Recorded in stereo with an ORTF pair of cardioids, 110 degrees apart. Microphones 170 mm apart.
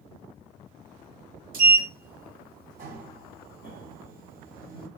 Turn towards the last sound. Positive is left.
turn(degrees=-55)